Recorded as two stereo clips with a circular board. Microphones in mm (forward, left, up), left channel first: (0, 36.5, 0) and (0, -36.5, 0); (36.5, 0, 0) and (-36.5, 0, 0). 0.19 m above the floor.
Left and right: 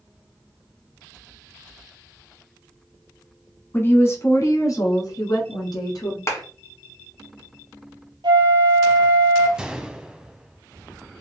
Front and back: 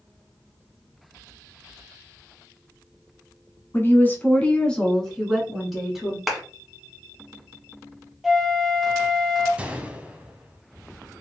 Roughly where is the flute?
Right.